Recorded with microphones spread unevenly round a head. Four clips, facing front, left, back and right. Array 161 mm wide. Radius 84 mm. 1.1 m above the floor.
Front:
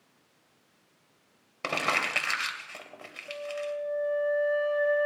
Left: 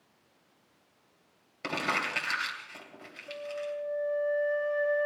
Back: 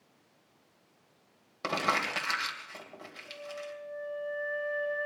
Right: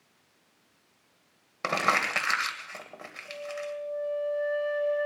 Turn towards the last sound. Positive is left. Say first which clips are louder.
# even, front 9 dB
turn(degrees=0)